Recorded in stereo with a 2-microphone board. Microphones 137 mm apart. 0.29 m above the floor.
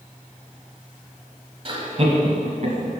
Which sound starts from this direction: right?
Laughter, at 1.6 s.